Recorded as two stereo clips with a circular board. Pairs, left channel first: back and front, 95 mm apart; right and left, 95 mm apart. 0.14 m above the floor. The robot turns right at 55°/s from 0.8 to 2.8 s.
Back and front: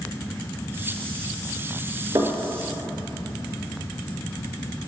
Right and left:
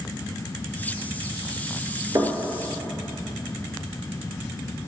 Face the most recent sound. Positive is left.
turn(degrees=80)